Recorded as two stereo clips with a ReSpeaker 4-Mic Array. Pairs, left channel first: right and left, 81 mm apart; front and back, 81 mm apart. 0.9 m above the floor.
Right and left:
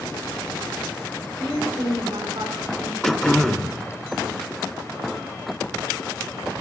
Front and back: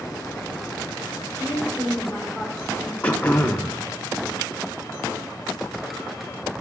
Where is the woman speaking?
105° left, 4 m.